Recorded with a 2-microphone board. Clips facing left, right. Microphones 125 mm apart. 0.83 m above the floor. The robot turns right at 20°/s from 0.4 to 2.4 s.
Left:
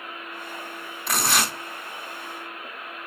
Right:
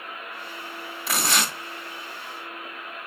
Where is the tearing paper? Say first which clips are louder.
Left 1 dB; centre (ahead or behind), 1.3 m; by 1.5 s 10° left (ahead or behind), 1.3 m.